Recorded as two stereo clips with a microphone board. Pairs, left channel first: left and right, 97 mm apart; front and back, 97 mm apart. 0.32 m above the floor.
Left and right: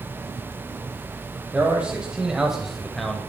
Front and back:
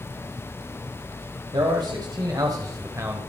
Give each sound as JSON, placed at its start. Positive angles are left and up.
{"t": 1.5, "sound": "a man speaking", "azimuth_deg": -160, "distance_m": 2.0}